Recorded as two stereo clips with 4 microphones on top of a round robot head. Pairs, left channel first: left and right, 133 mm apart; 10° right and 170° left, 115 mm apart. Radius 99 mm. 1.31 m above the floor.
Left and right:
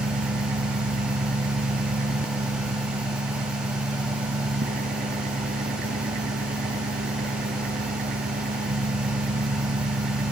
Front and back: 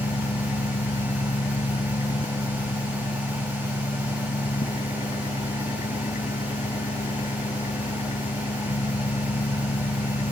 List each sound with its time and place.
0.0 s an engine running: 60° right